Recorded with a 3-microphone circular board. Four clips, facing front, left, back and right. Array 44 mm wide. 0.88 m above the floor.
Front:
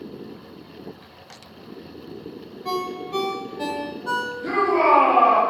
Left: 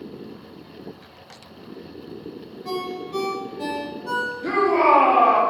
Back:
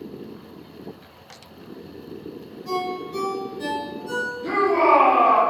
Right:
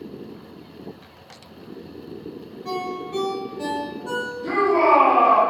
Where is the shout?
90° left, 1.4 m.